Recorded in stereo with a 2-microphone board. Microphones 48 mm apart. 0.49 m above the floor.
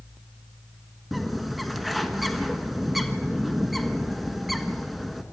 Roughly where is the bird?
Centre.